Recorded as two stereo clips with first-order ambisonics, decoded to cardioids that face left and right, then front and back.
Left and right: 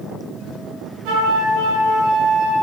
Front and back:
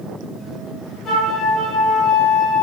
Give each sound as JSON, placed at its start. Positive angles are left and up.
{"t": 1.1, "sound": "a flute", "azimuth_deg": -70, "distance_m": 8.5}